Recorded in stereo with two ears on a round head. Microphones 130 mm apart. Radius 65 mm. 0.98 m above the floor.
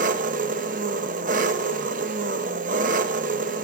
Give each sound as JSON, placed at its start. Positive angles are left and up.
{"t": 0.0, "sound": "an engine running", "side_deg": -60, "distance_m": 0.9}